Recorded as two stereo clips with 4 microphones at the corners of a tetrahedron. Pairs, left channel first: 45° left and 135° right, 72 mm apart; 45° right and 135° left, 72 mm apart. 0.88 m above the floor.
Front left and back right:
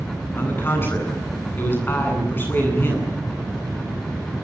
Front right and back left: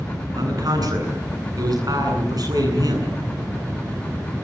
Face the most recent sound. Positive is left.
turn(degrees=105)